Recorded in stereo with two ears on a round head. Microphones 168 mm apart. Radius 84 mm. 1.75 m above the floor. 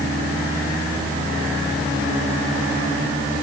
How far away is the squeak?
I don't hear a squeak.